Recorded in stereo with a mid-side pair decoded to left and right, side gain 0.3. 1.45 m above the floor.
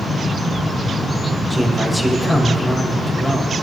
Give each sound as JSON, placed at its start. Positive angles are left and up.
{"t": 1.5, "sound": "a man speaking", "azimuth_deg": -5, "distance_m": 5.0}